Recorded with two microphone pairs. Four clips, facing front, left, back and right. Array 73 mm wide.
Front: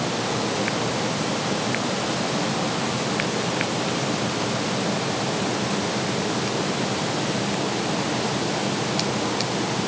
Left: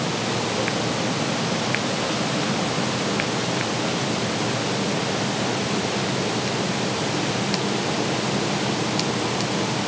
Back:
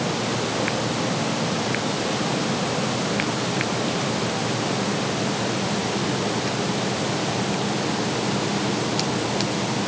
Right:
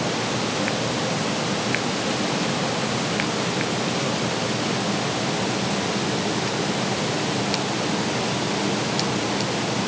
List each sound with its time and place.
Only background noise.